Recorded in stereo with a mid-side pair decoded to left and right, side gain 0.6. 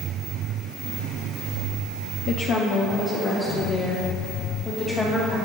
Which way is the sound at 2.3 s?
65° left.